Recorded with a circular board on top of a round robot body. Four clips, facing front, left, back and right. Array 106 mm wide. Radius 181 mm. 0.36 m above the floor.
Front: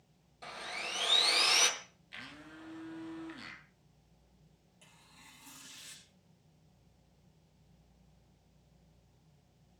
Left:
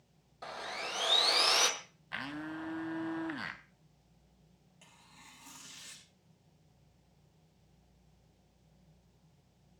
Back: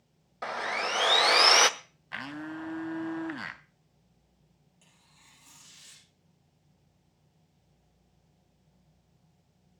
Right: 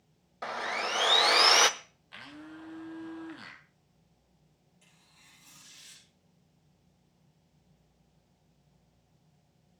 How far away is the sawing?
About 0.9 m.